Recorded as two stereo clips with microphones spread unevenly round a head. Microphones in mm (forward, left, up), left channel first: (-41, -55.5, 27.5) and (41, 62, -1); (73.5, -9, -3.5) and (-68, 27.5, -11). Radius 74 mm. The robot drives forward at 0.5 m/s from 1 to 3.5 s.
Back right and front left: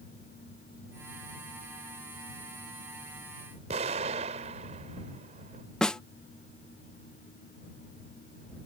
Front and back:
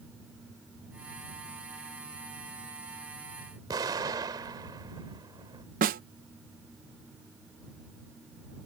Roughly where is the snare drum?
Behind left.